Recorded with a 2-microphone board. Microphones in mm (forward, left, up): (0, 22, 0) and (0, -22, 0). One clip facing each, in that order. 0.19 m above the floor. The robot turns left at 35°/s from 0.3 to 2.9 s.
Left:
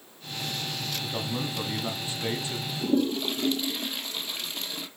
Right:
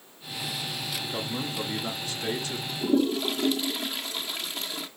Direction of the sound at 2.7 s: Centre (ahead or behind).